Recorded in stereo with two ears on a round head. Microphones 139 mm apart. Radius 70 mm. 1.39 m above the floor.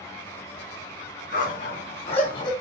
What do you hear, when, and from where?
1.3 s a dog barking: 60° left (ahead or behind), 4 m; by 2.5 s 30° left (ahead or behind), 3.5 m